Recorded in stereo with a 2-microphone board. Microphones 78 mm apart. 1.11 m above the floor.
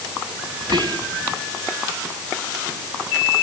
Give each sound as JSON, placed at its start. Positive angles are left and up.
{"t": 0.6, "sound": "whispering", "side_deg": -80, "distance_m": 1.1}